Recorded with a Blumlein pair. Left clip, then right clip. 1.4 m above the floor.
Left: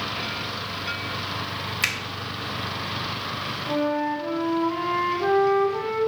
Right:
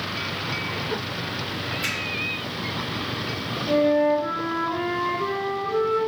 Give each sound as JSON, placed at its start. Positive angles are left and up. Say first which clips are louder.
{"t": 1.8, "sound": "a finger snap", "louder": "left 4 dB", "azimuth_deg": 40, "distance_m": 0.5}
{"t": 3.7, "sound": "a flute", "louder": "right 6 dB", "azimuth_deg": -60, "distance_m": 1.5}